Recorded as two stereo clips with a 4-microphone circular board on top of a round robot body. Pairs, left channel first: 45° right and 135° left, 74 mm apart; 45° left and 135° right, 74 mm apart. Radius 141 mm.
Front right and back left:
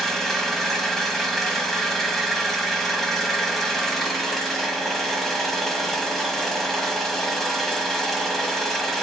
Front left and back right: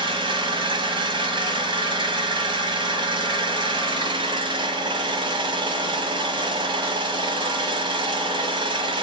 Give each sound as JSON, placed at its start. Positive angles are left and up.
{"t": 0.0, "sound": "an engine running", "azimuth_deg": -135, "distance_m": 1.0}